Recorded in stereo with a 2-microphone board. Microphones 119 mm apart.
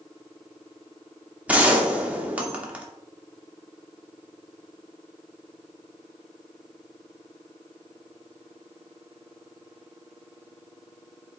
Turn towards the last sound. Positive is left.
turn(degrees=-10)  # may be behind; listen again after turning